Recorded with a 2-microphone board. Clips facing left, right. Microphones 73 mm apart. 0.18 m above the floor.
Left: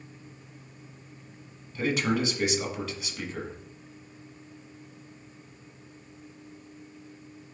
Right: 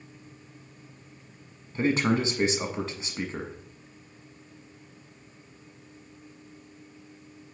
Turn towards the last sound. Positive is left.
turn(degrees=-35)  # may be behind; listen again after turning